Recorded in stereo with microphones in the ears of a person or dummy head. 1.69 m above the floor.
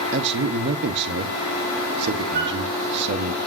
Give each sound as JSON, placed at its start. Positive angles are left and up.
{"t": 0.1, "sound": "a man speaking", "side_deg": -50, "distance_m": 1.4}
{"t": 2.3, "sound": "a flute", "side_deg": -50, "distance_m": 2.0}